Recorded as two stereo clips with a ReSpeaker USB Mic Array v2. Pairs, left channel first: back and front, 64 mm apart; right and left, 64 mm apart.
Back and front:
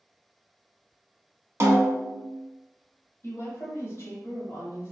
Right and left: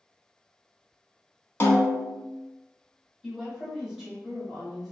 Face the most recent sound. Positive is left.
turn(degrees=170)